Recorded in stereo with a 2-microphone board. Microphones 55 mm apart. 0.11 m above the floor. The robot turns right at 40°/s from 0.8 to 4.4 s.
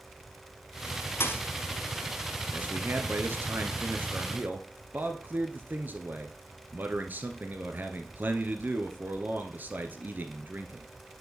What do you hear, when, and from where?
1.2 s a thud: 45° left (ahead or behind), 1.2 m; by 1.4 s 40° left (ahead or behind), 1.2 m
2.5 s a man speaking: 135° right, 1.6 m; by 10.9 s 60° right, 1.6 m